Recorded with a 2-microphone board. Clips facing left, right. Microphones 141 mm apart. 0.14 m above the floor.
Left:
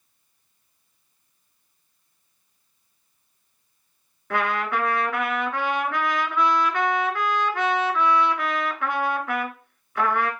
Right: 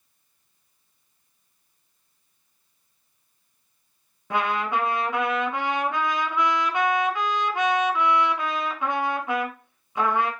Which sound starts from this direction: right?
A trumpet, at 4.3 s.